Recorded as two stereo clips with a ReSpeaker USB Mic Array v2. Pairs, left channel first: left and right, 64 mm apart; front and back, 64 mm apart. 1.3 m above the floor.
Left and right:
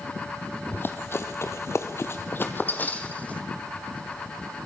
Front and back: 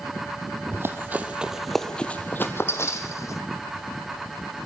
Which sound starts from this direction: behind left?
Running footsteps, at 0.7 s.